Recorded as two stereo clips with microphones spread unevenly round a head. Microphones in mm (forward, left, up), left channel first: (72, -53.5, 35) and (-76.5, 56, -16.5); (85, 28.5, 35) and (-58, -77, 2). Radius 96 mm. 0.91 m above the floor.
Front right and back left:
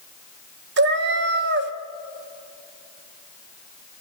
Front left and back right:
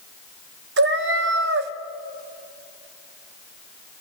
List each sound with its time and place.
0.8 s a cat meowing: straight behind, 0.9 m